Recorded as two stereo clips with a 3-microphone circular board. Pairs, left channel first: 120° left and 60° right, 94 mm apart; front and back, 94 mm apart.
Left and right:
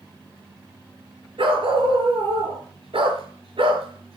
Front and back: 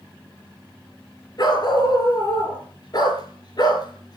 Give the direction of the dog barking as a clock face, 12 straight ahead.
1 o'clock.